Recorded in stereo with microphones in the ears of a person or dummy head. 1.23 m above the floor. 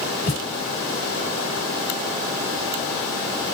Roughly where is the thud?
Left.